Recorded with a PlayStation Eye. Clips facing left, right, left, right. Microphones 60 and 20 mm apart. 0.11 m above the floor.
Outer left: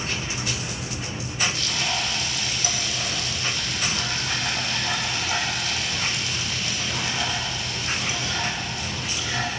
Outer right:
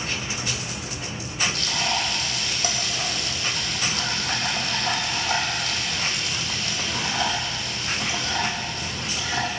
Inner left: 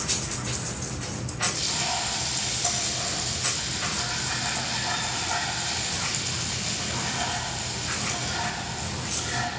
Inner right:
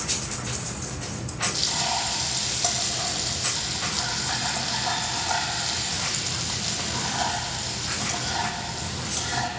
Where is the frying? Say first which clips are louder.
Outer right 1 dB, inner right 5 dB; 45° right (ahead or behind), 3.5 m.